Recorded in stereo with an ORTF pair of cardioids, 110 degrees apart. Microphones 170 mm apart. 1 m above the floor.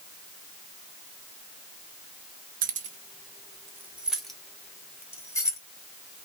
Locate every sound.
2.6 s keys jangling: 55° right, 0.8 m; by 5.6 s 15° left, 1.6 m